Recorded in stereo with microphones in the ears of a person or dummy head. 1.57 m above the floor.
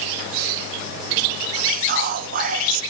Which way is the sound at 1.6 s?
50° right (ahead or behind).